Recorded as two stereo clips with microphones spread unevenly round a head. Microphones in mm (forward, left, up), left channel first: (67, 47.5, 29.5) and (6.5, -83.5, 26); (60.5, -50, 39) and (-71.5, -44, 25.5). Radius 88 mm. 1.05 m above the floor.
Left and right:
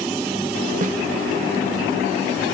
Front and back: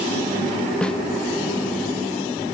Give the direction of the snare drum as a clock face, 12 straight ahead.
3 o'clock.